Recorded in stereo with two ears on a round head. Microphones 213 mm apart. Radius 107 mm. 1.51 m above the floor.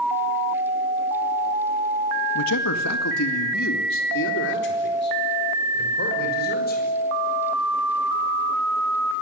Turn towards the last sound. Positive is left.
turn(degrees=40)  # may be behind; listen again after turning